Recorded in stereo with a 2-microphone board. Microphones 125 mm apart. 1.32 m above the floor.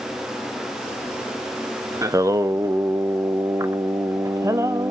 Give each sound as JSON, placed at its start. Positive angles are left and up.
{"t": 2.0, "sound": "singing", "side_deg": -25, "distance_m": 0.7}